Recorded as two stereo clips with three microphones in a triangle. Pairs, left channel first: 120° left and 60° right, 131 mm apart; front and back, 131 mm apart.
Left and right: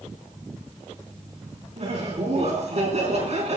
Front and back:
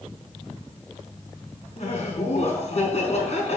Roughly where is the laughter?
Ahead right.